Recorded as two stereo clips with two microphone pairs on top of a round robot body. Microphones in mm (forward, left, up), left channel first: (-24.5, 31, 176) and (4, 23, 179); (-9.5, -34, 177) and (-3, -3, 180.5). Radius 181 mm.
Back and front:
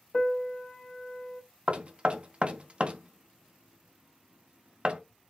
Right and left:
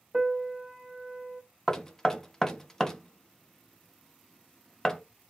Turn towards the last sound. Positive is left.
turn(degrees=-45)